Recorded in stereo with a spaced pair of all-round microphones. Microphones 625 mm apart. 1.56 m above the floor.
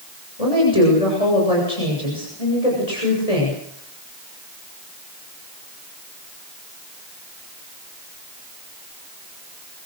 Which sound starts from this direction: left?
A woman speaking, at 0.4 s.